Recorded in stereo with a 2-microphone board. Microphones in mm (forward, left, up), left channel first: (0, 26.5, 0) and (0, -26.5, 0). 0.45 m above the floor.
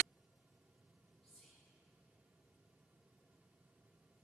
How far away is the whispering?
About 1.2 m.